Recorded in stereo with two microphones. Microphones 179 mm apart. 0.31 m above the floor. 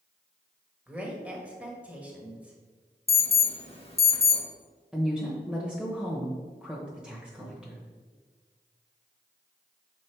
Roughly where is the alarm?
Left.